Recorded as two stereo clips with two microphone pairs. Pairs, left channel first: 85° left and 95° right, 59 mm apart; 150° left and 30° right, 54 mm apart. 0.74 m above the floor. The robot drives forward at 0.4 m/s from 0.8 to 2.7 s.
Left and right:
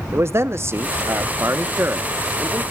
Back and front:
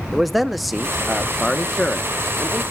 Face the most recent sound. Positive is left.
turn(degrees=-155)